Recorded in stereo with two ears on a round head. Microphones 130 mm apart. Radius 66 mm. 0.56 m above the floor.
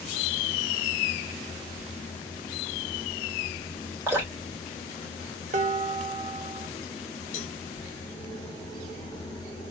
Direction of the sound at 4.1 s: 15° right (ahead or behind).